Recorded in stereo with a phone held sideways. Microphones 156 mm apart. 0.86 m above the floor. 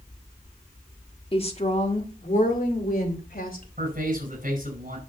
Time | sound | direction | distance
1.3 | a woman speaking | 35° left (ahead or behind) | 1.5 m
3.8 | a man speaking | 60° right (ahead or behind) | 5 m